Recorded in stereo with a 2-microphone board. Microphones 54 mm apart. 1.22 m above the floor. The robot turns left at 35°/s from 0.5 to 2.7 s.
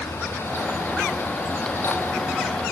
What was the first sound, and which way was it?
Only background noise.